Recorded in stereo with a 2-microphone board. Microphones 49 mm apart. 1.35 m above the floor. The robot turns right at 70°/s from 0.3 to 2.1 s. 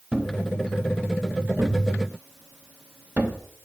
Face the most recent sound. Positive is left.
turn(degrees=-25)  # may be behind; listen again after turning